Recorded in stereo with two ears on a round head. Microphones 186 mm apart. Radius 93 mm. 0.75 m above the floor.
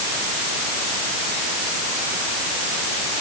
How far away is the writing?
No writing in this recording.